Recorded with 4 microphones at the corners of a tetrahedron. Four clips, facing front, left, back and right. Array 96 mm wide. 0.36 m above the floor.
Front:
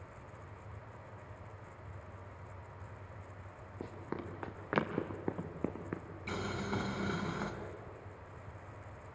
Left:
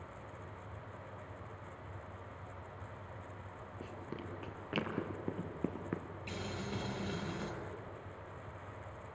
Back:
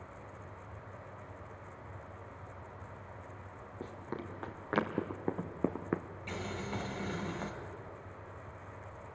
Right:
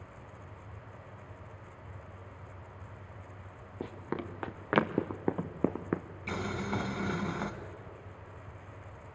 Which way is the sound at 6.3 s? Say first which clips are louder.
Right 8 dB, front 2 dB; 70° right.